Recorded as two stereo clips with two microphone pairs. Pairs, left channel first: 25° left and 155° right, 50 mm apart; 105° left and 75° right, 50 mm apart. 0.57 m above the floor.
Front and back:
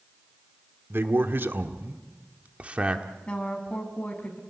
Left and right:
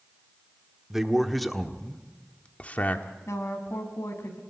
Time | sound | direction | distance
0.9 | a man speaking | 155° right | 1.5 m
3.3 | a woman speaking | 90° left | 4.5 m